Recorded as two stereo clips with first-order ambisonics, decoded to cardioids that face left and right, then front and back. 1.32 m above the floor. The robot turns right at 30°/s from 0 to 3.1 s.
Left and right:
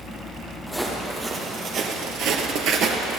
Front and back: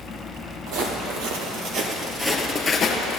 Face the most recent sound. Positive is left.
turn(degrees=-35)